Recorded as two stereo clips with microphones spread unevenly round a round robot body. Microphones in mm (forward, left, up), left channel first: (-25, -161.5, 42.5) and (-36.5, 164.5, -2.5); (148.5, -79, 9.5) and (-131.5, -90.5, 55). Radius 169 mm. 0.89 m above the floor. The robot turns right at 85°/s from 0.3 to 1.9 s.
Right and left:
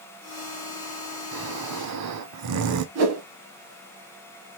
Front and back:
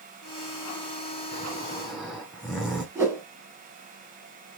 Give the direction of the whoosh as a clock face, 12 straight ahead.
8 o'clock.